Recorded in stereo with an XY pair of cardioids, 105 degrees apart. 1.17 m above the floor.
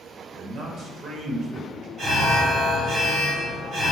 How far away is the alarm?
About 1.5 m.